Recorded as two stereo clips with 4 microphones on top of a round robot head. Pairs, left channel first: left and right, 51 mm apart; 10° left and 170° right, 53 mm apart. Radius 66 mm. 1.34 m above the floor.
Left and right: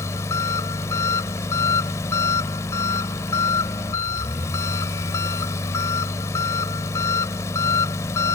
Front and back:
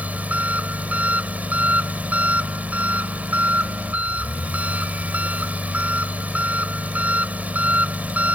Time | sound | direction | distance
0.0 | an engine running | 125° left | ?